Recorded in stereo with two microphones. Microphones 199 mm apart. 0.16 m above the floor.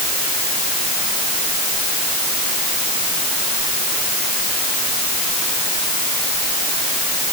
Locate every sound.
Only background noise.